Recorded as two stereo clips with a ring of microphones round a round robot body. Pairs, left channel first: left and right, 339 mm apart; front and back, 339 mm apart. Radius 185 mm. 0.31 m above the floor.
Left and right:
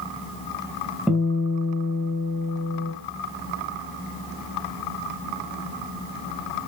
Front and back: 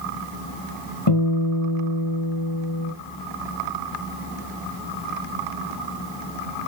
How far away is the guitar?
About 2 m.